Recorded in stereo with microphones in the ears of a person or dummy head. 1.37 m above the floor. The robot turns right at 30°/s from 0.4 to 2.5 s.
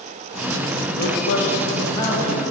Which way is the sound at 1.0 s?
130° left.